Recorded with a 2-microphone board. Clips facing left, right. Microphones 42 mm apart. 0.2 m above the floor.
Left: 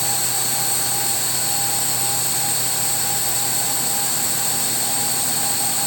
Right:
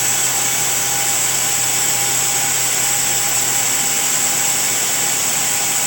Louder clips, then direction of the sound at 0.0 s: Right 4 dB; 60° right (ahead or behind).